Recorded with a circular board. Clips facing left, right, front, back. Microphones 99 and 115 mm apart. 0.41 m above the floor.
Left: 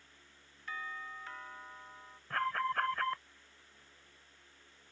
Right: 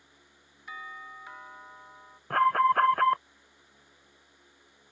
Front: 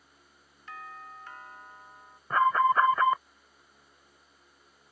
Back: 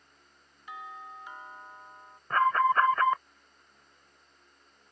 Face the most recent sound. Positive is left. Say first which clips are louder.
# right 12 dB, front 1 dB
turn(degrees=-80)